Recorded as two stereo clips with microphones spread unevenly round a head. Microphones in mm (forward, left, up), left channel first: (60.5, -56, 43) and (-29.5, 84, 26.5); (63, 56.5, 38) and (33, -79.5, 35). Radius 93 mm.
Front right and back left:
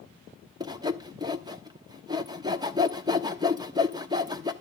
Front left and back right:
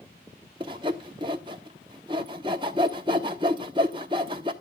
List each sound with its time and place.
0.6 s sawing: 165° right, 1.0 m